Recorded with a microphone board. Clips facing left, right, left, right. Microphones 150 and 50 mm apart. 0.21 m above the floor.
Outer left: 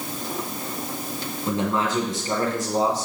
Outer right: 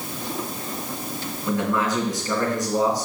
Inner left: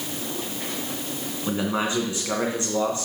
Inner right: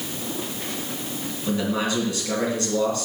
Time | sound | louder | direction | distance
1.5 | a man speaking | outer right 1 dB, inner right 1 dB | 30° left (ahead or behind) | 2.5 m